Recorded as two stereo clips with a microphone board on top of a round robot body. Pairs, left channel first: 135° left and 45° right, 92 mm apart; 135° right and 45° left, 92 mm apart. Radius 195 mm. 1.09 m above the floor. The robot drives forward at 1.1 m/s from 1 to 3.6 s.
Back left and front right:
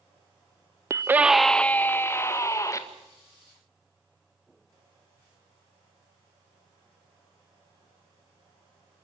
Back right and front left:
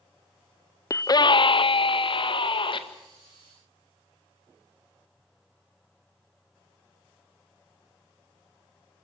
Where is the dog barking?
No dog barking in this recording.